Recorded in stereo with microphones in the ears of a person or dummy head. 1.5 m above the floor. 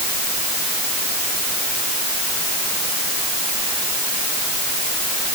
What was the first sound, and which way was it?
Only background noise.